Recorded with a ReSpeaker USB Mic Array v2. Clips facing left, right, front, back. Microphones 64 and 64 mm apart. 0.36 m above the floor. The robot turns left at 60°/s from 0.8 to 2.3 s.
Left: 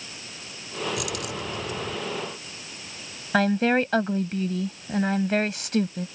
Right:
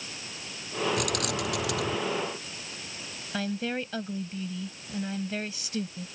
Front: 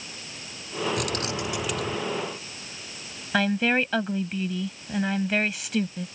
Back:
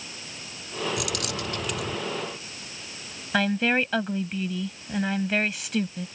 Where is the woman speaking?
90° left.